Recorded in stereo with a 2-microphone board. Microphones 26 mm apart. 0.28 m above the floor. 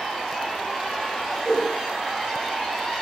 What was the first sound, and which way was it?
A whoosh, 15° left (ahead or behind).